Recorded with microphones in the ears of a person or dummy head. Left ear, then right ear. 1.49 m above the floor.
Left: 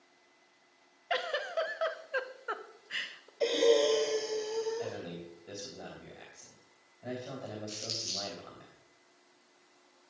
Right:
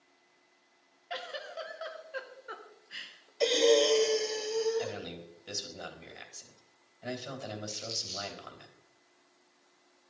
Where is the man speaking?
60° right (ahead or behind), 3.5 m.